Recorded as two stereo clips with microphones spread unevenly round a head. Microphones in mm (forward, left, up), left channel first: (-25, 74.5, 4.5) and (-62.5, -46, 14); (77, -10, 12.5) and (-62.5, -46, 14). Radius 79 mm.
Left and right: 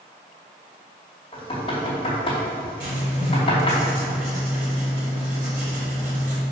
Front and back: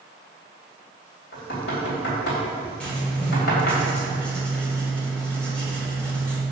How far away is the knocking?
About 2.5 m.